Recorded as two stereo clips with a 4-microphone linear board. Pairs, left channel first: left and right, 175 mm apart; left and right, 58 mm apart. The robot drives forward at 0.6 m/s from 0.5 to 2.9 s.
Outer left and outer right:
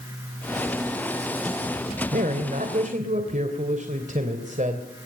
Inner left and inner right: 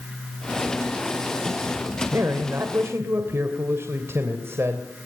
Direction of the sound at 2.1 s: 55° right (ahead or behind).